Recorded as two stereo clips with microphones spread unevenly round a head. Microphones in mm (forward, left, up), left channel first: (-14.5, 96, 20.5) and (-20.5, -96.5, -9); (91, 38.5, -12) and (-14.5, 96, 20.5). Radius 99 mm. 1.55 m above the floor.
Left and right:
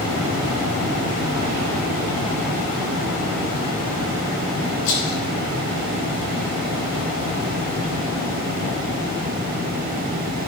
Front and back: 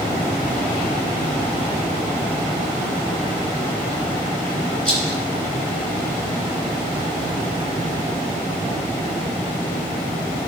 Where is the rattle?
55° left, 3.5 m.